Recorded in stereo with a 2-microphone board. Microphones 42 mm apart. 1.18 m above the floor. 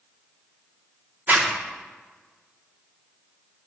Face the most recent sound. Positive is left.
turn(degrees=-45)  # may be behind; listen again after turning